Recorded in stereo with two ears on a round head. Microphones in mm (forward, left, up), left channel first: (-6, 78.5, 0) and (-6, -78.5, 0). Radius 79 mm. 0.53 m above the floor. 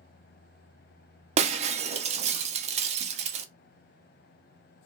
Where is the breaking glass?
40° right (ahead or behind), 0.5 m.